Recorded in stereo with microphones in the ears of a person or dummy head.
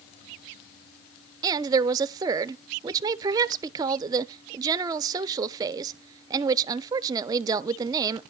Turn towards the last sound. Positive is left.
turn(degrees=-15)  # may be behind; listen again after turning